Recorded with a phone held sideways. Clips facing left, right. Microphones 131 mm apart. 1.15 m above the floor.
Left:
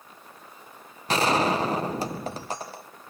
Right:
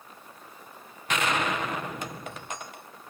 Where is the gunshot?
35° left (ahead or behind), 0.6 m.